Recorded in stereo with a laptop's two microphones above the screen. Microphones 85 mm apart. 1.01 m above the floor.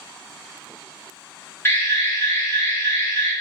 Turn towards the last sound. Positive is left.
turn(degrees=25)  # may be behind; listen again after turning